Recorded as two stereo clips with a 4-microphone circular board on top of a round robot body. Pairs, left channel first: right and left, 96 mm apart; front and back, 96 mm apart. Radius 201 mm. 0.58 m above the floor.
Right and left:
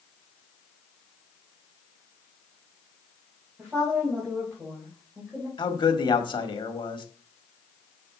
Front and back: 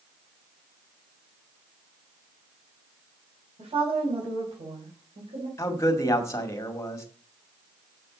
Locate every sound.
3.6 s a woman speaking: straight behind, 5 m; by 5.5 s 175° left, 4 m
5.6 s a man speaking: 60° right, 2 m